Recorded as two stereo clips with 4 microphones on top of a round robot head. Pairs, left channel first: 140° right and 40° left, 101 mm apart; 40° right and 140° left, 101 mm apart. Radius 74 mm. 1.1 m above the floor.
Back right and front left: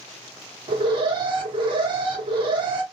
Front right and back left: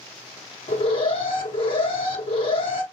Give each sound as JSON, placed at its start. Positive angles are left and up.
{"t": 0.7, "sound": "an alarm", "azimuth_deg": -5, "distance_m": 1.1}